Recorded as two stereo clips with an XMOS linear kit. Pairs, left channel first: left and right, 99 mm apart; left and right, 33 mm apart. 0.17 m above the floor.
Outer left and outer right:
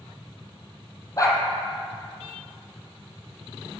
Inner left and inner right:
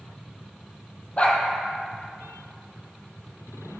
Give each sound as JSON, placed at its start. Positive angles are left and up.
{"t": 1.2, "sound": "a dog barking", "side_deg": 35, "distance_m": 2.0}